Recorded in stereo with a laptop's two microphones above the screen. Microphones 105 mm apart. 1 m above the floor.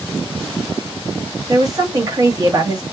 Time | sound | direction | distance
1.5 | a woman speaking | 35° right (ahead or behind) | 1.4 m